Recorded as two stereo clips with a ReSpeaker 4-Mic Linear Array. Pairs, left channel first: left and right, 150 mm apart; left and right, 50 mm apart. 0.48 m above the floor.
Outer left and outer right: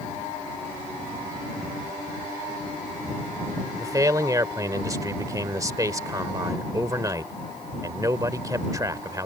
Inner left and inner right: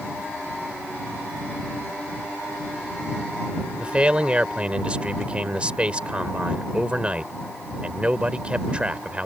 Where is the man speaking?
25° right (ahead or behind).